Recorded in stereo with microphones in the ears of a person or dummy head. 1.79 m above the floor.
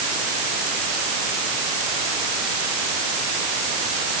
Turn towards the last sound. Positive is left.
No sound to turn to.